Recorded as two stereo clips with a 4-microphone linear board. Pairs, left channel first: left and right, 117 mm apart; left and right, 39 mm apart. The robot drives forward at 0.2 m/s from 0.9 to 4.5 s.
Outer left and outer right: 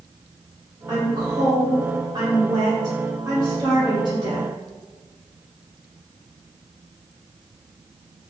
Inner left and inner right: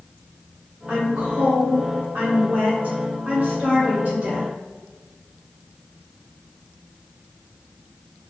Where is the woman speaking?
30° right (ahead or behind), 1.9 m; by 4.5 s 40° right (ahead or behind), 1.6 m.